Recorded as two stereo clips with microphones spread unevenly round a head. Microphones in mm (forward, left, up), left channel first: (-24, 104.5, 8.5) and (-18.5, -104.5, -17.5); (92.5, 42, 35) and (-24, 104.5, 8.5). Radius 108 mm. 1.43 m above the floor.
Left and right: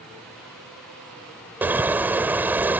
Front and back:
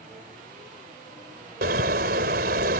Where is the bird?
175° right.